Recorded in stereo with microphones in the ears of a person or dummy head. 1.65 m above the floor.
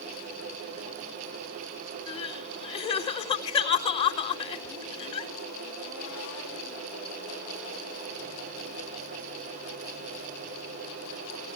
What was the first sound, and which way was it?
Crying, 35° left (ahead or behind).